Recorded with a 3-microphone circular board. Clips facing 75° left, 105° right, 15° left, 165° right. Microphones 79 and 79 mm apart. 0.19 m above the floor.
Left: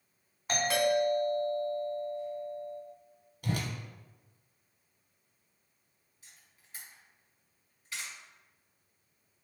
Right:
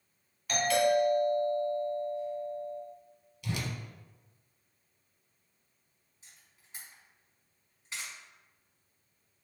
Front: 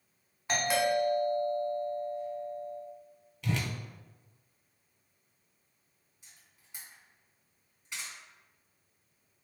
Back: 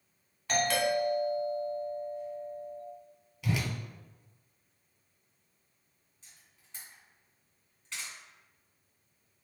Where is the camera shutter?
55° right, 1.8 m.